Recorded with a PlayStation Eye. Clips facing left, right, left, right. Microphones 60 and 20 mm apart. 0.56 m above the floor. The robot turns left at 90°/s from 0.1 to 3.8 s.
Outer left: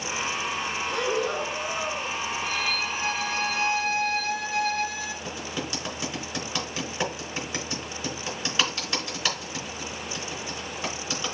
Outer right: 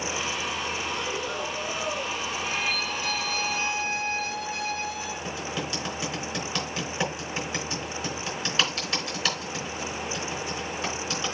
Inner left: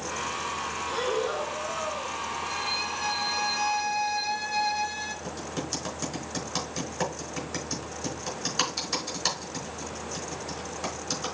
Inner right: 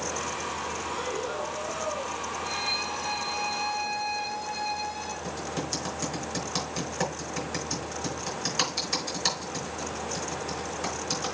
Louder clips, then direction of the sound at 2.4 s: Even, inner right 1 dB; 145° right.